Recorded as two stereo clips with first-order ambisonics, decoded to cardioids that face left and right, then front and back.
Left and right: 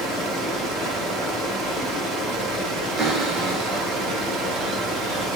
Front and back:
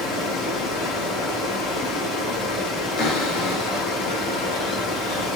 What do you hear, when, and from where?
0.0 s running water: 35° right, 5 m
3.0 s a cupboard door: 25° right, 3.5 m